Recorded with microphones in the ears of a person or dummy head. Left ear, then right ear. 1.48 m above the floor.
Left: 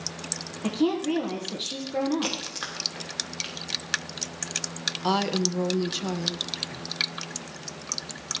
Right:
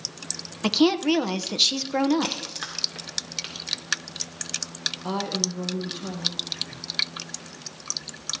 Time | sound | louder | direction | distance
0.6 | a woman speaking | right 5 dB | 60° right (ahead or behind) | 0.9 m
2.2 | a crack | right 1 dB | 5° right (ahead or behind) | 1.9 m
5.0 | a woman speaking | left 6 dB | 55° left (ahead or behind) | 1.0 m